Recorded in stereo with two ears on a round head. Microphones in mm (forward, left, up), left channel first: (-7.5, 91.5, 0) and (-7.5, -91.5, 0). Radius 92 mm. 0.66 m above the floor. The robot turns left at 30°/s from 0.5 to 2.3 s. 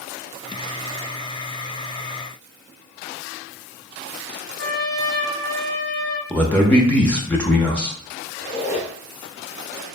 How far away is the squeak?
About 0.6 m.